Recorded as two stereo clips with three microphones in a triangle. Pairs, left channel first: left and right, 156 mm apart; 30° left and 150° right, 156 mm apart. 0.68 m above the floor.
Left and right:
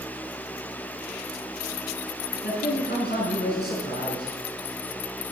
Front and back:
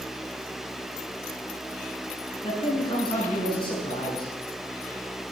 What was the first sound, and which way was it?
A man speaking, 90° left.